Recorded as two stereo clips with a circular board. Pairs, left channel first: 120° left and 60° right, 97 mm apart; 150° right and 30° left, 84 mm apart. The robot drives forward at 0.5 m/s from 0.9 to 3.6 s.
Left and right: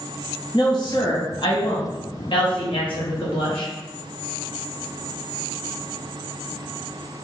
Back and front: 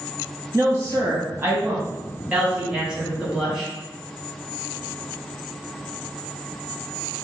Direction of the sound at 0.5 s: 85° left.